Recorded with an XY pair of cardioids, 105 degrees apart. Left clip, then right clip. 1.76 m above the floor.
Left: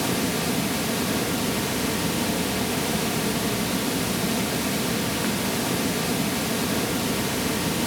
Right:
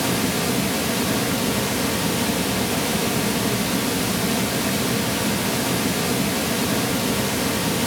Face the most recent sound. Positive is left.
turn(degrees=-20)